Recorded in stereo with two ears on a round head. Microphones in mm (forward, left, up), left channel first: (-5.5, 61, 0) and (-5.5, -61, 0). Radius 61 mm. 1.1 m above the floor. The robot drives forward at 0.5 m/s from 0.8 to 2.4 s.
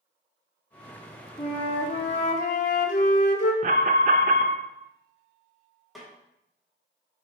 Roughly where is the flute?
Left.